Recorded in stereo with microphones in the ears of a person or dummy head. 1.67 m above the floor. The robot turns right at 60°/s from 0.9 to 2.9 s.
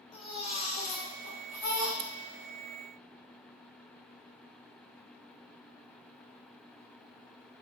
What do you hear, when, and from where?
0.1 s a baby crying: 35° left, 1.9 m; by 1.9 s 95° left, 1.9 m
2.0 s scissors: 60° right (ahead or behind), 0.6 m; by 2.1 s 50° right (ahead or behind), 0.6 m